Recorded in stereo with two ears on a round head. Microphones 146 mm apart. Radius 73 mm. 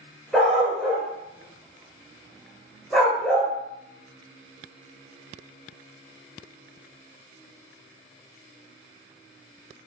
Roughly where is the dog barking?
Centre.